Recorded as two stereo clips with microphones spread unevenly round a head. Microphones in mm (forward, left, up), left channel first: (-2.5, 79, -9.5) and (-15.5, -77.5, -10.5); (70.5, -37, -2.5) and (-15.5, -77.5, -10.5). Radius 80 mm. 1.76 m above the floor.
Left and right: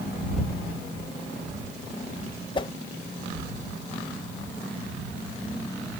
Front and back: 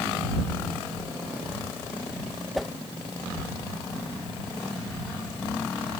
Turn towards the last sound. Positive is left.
turn(degrees=105)